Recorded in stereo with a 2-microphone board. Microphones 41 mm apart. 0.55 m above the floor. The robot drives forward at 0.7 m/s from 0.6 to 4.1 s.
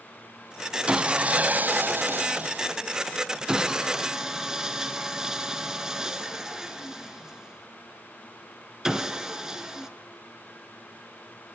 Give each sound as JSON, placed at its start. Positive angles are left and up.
{"t": 0.9, "sound": "sawing", "side_deg": -25, "distance_m": 0.9}